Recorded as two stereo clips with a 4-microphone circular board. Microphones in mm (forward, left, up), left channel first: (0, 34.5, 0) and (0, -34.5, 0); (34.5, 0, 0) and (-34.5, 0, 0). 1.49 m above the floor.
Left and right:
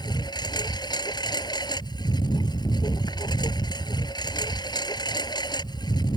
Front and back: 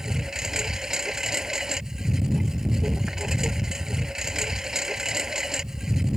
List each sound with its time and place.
0.0 s a lawn mower: 95° left